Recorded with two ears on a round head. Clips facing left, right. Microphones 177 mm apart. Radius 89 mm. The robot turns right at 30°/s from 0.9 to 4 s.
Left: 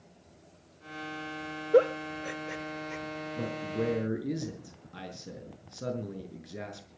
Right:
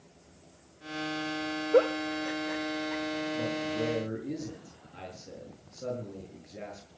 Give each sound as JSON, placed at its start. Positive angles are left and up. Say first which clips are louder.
{"t": 1.7, "sound": "a giggle", "louder": "left 1 dB", "side_deg": 15, "distance_m": 0.9}
{"t": 3.4, "sound": "a man speaking", "louder": "left 2 dB", "side_deg": 75, "distance_m": 6.5}